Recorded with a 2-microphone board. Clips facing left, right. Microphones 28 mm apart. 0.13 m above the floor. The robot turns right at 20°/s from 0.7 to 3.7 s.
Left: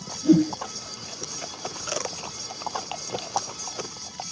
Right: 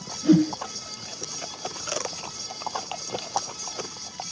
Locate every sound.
0.2 s a whoosh: 40° right (ahead or behind), 0.8 m